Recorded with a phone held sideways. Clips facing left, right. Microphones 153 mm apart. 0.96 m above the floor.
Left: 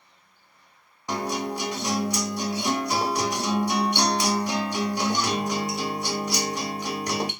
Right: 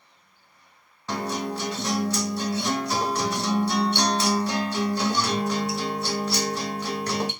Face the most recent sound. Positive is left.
turn(degrees=15)  # may be behind; listen again after turning